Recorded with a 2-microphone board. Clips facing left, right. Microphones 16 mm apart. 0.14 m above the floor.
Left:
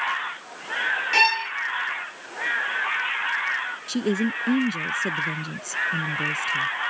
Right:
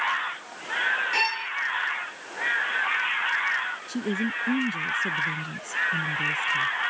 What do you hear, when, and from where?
1.1 s a violin: 25° left (ahead or behind)
3.9 s a woman speaking: 40° left (ahead or behind)